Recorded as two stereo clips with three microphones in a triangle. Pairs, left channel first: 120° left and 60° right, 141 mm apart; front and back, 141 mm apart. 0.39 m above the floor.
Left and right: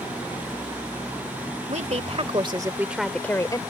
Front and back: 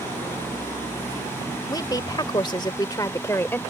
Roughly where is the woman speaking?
Ahead right.